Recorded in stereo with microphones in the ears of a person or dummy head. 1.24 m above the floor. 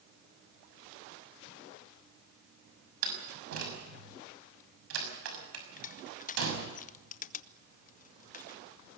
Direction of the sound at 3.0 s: 80° right.